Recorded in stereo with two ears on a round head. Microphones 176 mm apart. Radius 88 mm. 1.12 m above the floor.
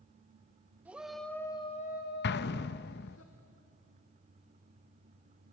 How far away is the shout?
About 1.7 m.